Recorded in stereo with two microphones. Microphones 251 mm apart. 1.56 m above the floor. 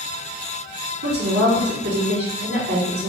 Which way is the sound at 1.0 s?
60° right (ahead or behind).